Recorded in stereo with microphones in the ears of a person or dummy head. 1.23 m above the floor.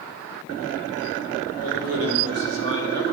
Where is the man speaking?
80° right, 3 m.